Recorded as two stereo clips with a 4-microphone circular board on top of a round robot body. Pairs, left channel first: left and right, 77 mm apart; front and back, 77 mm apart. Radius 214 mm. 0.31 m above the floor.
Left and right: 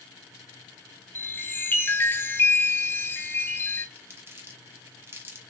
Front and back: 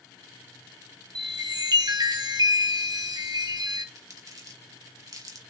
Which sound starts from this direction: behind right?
Crumpling, at 4.0 s.